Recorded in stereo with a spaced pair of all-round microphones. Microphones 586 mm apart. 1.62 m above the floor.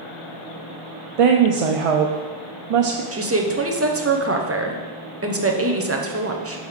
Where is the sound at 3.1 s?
25° right (ahead or behind), 0.7 m.